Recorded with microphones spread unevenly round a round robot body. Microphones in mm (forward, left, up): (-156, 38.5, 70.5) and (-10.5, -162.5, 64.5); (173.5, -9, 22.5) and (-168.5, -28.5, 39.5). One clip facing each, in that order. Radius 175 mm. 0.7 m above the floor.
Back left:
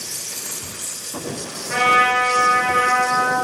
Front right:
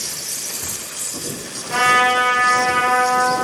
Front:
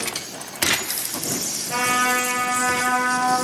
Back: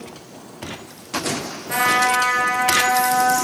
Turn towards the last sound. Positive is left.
turn(degrees=145)